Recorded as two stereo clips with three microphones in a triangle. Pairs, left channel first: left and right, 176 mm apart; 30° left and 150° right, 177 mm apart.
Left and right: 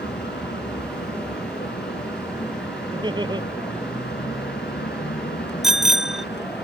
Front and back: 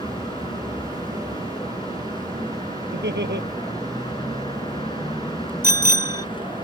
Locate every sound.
0.0 s a vehicle: 90° left
2.9 s laughter: 155° right
5.6 s a bicycle bell: straight behind